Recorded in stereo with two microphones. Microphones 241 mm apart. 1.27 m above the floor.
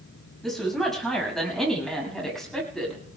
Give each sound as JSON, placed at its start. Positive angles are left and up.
{"t": 0.4, "sound": "a woman speaking", "side_deg": 0, "distance_m": 6.5}